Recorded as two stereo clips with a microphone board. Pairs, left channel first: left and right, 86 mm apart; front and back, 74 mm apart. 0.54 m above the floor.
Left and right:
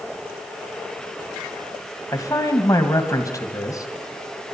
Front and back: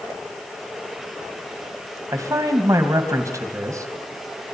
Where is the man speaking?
135° left, 3 m.